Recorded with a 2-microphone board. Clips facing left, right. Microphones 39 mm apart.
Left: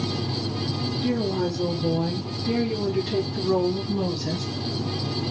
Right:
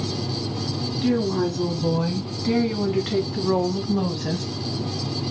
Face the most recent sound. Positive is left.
turn(degrees=-40)  # may be behind; listen again after turning